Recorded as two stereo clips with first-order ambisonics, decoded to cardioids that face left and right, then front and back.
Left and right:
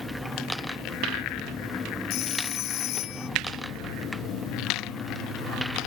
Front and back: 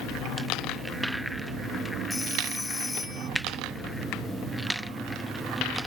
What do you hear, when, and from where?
2.1 s a phone ringing: 80° left